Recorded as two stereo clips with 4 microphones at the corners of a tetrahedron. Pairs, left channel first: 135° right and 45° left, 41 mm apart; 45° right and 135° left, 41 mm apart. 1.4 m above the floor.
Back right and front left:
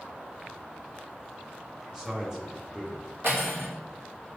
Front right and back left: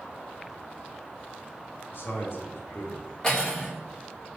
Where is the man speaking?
25° right, 1.2 m.